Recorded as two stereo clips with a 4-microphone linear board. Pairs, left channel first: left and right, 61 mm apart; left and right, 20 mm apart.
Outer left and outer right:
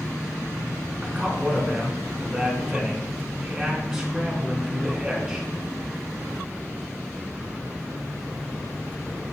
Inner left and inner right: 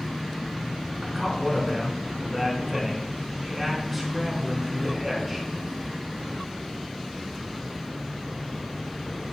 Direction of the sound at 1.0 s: 10° right (ahead or behind).